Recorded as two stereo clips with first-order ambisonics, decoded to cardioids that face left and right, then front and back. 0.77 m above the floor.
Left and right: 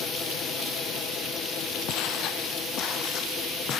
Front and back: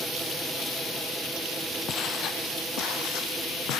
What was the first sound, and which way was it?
Footsteps, 55° left.